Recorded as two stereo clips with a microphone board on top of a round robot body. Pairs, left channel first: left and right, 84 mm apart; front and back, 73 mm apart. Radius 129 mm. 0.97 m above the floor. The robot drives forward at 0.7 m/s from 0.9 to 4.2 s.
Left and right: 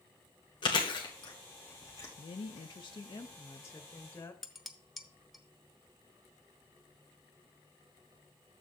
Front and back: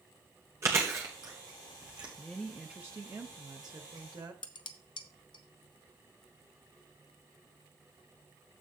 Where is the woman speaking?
75° left, 0.7 m; by 4.3 s 155° left, 1.4 m.